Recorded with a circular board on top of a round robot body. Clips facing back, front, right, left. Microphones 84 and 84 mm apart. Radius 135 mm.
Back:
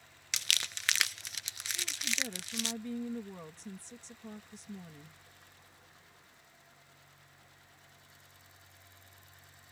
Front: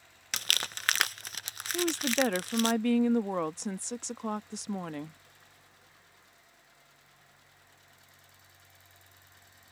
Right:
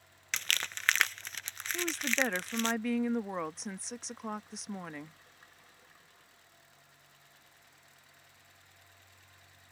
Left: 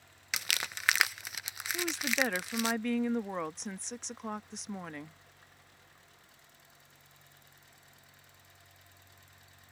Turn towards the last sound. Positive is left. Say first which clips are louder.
# front 14 dB, even
turn(degrees=0)